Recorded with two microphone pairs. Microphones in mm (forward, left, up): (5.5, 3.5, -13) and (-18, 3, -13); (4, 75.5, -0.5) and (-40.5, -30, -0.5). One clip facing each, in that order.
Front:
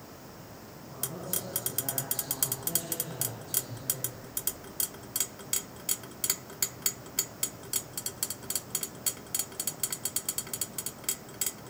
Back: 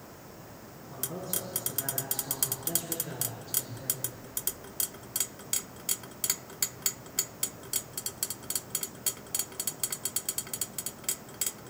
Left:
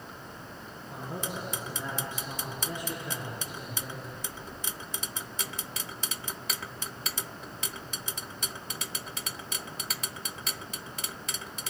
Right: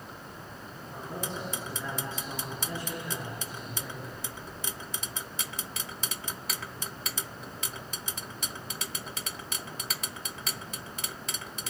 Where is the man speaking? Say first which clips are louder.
Back 1 dB, even; 140° left, 9 m; by 4.2 s 135° left, 7.5 m.